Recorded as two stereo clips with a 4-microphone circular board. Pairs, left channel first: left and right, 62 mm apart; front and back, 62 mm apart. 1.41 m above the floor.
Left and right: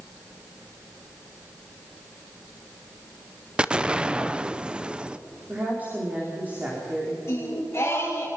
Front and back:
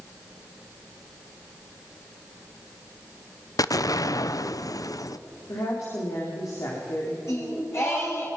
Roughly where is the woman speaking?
Ahead right.